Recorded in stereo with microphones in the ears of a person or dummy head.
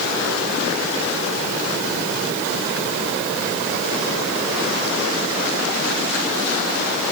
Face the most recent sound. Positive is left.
No sound to turn to.